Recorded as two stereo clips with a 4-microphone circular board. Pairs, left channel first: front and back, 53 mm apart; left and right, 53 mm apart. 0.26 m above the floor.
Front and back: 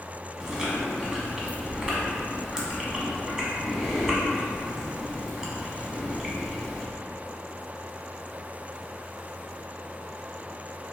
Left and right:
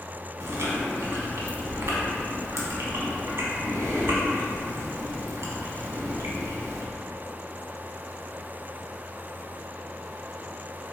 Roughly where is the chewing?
Right.